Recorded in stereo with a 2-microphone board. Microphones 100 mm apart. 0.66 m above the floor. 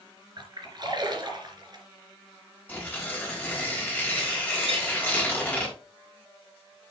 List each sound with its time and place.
0.4 s a splash: 45° right (ahead or behind), 3 m
2.7 s tearing paper: 15° left (ahead or behind), 4 m
4.7 s a clink: 75° right (ahead or behind), 4.5 m